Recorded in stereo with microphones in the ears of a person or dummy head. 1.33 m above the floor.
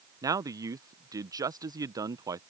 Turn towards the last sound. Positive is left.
turn(degrees=-25)  # may be behind; listen again after turning